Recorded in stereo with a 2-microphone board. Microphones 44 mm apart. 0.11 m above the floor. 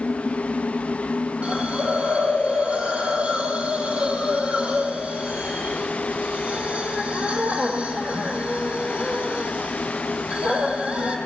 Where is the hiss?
30° right (ahead or behind), 2.5 m.